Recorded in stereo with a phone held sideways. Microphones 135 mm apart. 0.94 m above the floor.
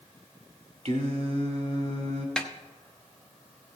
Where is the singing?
55° right (ahead or behind), 1.4 m.